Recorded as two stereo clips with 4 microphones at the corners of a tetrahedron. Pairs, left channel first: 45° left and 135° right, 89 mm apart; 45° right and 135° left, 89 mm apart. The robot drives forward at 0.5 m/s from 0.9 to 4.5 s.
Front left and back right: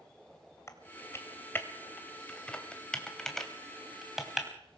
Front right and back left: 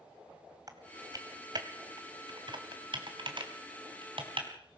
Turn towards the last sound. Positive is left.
turn(degrees=140)